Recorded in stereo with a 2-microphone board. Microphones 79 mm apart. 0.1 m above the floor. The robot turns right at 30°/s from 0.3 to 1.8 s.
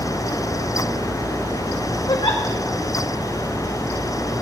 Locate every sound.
2.1 s a giggle: 75° left (ahead or behind), 3 m